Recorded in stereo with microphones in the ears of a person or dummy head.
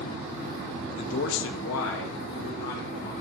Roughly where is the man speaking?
Left.